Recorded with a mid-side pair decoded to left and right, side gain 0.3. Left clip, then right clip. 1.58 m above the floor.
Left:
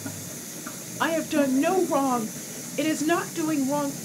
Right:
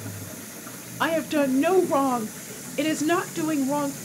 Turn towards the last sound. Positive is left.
turn(degrees=-15)